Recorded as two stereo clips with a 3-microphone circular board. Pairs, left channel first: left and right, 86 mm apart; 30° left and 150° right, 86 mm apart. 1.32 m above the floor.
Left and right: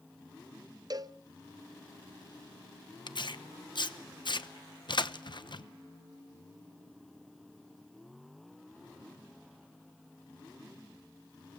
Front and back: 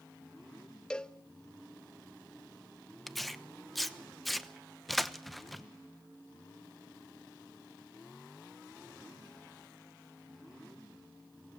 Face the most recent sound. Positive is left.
turn(degrees=120)